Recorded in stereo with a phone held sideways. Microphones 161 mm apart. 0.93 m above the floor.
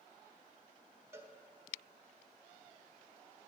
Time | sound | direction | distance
1.1 | a cowbell | 15° right (ahead or behind) | 0.7 m